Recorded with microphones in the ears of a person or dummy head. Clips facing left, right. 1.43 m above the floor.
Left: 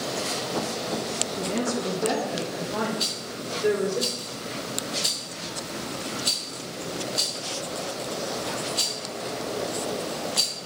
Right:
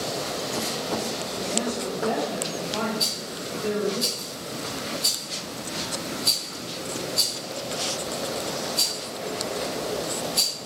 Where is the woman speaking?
90° left, 2 m; by 4.0 s 80° left, 4 m.